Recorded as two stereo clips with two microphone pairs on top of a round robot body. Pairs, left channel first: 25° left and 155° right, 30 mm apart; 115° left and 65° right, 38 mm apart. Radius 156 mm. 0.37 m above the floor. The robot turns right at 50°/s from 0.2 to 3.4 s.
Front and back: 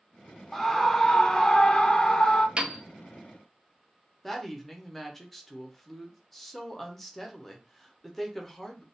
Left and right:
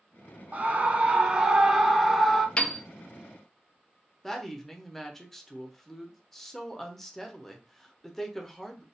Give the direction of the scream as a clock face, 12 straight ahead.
1 o'clock.